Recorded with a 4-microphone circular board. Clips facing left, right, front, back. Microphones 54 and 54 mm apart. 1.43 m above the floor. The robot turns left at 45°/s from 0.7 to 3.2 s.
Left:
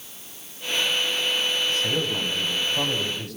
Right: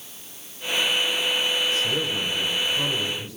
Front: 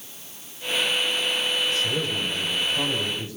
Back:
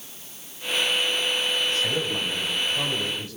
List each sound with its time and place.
1.7 s a man speaking: 135° left, 9 m; by 3.4 s 65° left, 9 m